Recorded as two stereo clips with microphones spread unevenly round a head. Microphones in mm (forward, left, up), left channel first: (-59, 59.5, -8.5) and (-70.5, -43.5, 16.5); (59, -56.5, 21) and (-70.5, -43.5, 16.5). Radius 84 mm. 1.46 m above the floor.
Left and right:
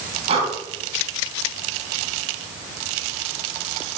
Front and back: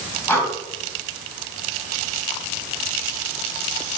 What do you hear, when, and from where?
0.3 s breathing: 80° right, 3.5 m